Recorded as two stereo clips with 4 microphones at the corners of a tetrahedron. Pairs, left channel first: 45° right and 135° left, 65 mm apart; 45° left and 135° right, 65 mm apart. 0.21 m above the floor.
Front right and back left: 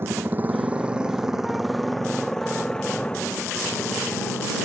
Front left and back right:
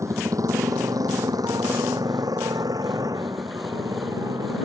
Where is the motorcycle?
170° right; by 4.7 s 110° right.